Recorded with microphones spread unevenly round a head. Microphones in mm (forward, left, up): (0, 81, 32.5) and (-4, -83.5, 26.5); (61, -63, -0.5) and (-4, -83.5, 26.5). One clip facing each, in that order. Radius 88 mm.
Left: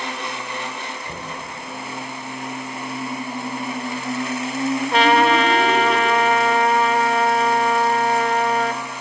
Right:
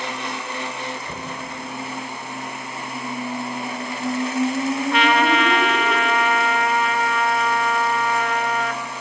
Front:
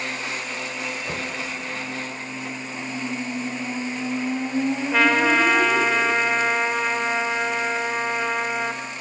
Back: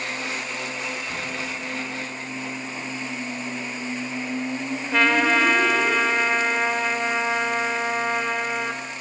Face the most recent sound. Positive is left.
turn(degrees=135)